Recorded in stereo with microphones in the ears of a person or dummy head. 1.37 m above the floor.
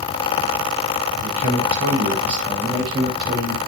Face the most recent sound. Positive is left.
turn(degrees=-25)  # may be behind; listen again after turning